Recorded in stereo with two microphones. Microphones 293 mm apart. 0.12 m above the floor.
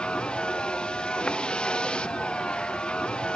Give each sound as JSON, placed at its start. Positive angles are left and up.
{"t": 0.0, "sound": "a vehicle", "side_deg": 5}